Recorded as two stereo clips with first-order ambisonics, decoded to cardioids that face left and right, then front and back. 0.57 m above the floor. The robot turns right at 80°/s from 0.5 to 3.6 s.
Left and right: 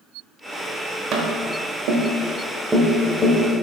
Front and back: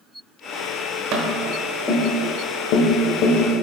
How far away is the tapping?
About 1.1 m.